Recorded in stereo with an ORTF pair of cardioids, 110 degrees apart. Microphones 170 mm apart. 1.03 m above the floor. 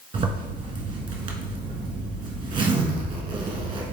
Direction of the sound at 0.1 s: 30° right.